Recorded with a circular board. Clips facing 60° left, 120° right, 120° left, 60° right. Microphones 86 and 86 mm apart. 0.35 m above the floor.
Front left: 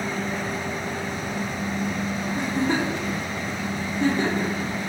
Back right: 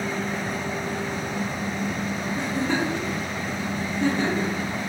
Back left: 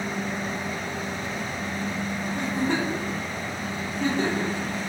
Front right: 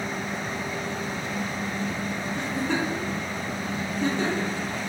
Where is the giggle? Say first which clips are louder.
Front left 2 dB, back left 2 dB; 100° left, 1.2 m.